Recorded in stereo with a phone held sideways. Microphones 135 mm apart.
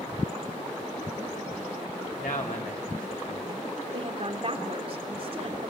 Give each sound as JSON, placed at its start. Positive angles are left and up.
{"t": 2.2, "sound": "a man speaking", "side_deg": 80, "distance_m": 3.0}
{"t": 3.9, "sound": "a woman speaking", "side_deg": -45, "distance_m": 3.0}